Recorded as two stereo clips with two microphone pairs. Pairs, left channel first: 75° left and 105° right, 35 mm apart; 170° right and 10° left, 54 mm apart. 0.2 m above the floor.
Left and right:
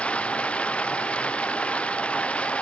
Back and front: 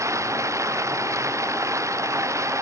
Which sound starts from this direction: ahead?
Running water, at 0.0 s.